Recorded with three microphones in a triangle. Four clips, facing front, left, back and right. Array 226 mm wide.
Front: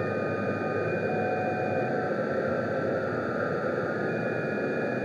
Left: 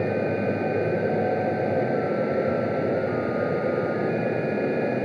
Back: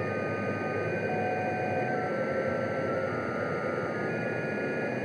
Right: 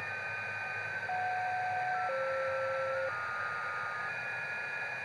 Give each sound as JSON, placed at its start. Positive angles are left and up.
{"t": 0.0, "sound": "running water", "azimuth_deg": 80}